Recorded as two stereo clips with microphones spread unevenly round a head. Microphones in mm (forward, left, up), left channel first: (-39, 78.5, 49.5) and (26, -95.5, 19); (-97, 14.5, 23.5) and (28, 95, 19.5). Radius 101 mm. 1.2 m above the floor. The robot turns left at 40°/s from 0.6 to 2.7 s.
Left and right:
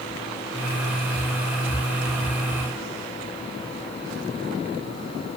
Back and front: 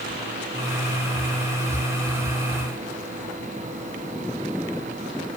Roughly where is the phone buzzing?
No phone buzzing in this recording.